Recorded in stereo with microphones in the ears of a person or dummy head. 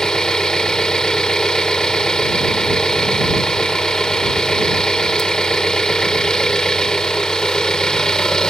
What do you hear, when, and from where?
0.0 s an engine running: centre (ahead or behind)